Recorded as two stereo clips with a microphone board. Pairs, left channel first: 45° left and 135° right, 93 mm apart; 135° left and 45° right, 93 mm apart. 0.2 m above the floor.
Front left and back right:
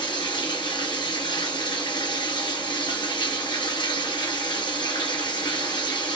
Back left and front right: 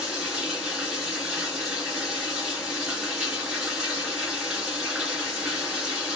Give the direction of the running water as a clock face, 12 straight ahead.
11 o'clock.